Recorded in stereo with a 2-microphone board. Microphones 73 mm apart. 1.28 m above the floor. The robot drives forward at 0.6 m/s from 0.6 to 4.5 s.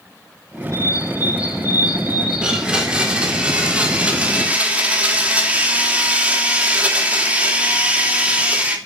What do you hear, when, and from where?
0.7 s a bird: 50° left (ahead or behind), 2.5 m; by 2.7 s 75° left (ahead or behind), 2 m
2.4 s a blender: 15° right (ahead or behind), 4 m; by 8.8 s 20° right (ahead or behind), 3 m